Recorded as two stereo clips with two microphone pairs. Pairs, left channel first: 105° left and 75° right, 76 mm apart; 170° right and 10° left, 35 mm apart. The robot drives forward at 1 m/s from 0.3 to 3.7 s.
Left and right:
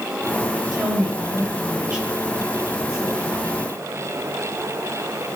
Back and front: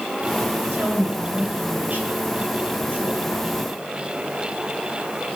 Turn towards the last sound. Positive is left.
turn(degrees=0)